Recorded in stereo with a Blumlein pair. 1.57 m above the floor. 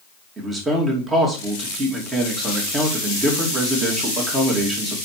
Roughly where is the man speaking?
Ahead.